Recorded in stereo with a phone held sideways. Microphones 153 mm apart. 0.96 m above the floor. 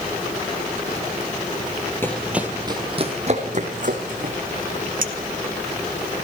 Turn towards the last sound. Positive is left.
turn(degrees=-65)  # may be behind; listen again after turning